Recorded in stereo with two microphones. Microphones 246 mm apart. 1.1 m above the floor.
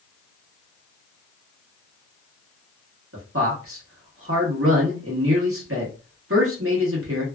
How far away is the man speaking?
About 1.4 m.